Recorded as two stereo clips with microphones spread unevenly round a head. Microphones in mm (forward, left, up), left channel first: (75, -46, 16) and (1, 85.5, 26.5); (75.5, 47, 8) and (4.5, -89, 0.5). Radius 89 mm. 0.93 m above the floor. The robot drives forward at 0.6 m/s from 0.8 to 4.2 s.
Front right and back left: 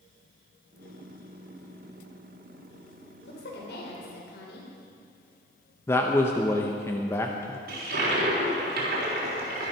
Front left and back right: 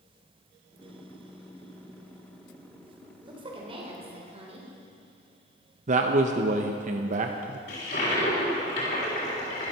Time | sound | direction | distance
3.2 | a woman speaking | 60° right | 3.5 m
5.9 | a man speaking | 125° right | 0.6 m
7.7 | a toilet flushing | 105° left | 3.5 m